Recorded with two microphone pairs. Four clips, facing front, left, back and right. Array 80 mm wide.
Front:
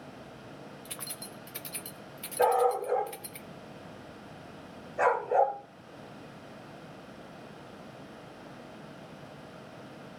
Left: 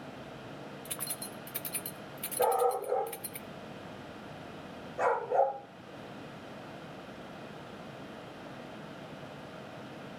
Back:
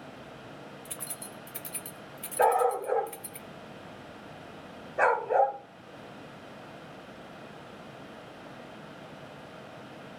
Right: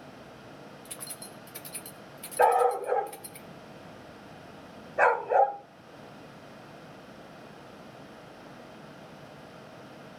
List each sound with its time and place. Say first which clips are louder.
0.8 s keys jangling: left 2 dB, back 1 dB; 65° left, 0.6 m
2.4 s a dog barking: right 5 dB, back 1 dB; 125° right, 2 m